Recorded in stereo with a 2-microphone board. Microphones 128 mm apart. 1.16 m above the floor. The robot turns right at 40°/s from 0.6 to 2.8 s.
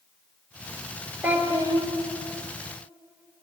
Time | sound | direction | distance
1.2 | a child speaking | 15° right (ahead or behind) | 1.1 m